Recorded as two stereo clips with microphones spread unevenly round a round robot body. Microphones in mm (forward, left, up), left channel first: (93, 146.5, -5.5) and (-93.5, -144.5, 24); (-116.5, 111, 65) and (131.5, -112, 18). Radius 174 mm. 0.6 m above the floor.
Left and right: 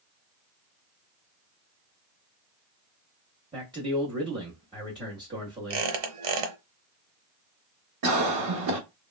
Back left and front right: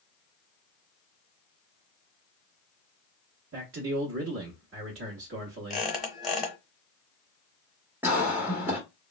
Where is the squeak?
135° right, 0.9 m.